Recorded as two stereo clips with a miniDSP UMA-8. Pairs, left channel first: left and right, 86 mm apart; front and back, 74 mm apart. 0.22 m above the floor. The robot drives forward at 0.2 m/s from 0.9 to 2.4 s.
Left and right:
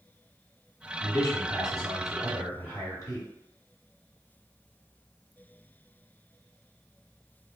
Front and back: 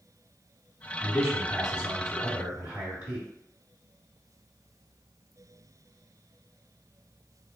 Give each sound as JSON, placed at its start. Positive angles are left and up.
{"t": 1.0, "sound": "a man speaking", "azimuth_deg": 100, "distance_m": 1.6}